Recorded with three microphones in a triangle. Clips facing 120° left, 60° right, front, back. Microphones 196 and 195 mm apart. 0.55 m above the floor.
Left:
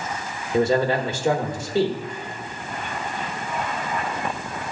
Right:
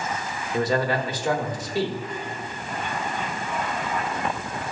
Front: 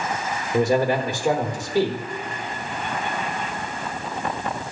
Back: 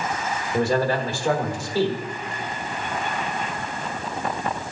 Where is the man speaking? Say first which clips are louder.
Left 4 dB, front 2 dB; 65° left, 1.2 m.